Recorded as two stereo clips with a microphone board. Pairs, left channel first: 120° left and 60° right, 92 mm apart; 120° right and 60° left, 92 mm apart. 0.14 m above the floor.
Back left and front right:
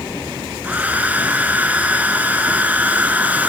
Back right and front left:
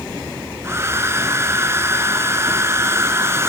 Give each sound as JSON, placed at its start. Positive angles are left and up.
{"t": 0.6, "sound": "a hair dryer", "azimuth_deg": 10, "distance_m": 1.4}